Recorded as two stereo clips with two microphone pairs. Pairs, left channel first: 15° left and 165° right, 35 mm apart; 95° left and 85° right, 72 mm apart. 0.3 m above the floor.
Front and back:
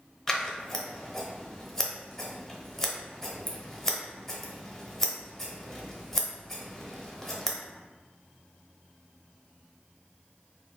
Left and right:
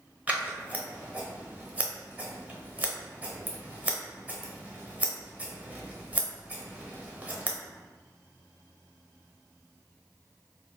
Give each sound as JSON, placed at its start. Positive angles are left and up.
{"t": 0.3, "sound": "scissors", "azimuth_deg": -50, "distance_m": 0.7}